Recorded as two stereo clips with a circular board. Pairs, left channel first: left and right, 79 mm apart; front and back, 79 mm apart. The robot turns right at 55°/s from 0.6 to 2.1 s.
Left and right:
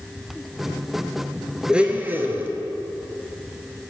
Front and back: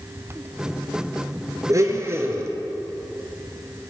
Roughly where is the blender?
Behind.